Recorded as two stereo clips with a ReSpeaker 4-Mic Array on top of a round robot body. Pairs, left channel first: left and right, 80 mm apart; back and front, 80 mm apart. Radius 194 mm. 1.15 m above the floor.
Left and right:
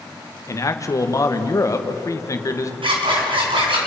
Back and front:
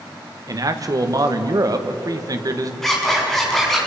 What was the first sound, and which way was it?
A man speaking, 40° left.